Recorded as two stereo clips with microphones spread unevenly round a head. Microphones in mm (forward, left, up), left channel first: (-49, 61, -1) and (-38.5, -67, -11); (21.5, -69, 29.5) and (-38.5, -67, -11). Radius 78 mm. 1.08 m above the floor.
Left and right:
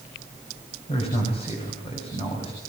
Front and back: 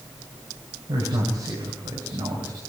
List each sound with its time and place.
0.9 s a man speaking: 135° left, 6.5 m